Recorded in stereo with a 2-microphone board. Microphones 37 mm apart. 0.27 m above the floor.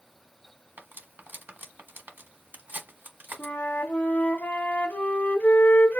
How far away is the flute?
About 1.2 m.